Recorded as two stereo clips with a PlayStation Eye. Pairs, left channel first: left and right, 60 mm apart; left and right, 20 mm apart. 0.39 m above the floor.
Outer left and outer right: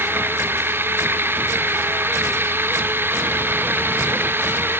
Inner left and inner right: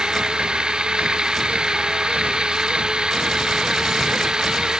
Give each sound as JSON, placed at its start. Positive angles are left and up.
{"t": 0.0, "sound": "running water", "side_deg": -40}